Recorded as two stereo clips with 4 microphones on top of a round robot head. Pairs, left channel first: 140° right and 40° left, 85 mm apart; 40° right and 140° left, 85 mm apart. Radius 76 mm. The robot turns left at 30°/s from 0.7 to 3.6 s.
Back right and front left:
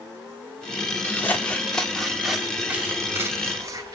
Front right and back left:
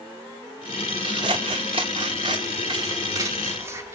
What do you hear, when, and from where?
1.0 s scissors: 165° left, 0.8 m; by 4.0 s 90° left, 0.8 m